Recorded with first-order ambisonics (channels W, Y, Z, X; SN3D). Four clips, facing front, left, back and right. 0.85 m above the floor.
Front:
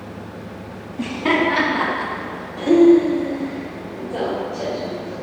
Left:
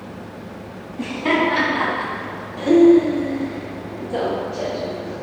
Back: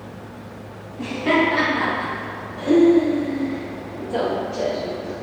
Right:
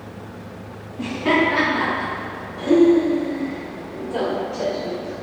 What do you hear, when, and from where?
1.0 s laughter: 30° left, 1.9 m; by 5.1 s 160° left, 1.4 m